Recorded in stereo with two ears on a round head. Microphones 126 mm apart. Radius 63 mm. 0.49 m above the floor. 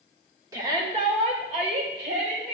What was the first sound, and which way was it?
A shout, 20° right (ahead or behind).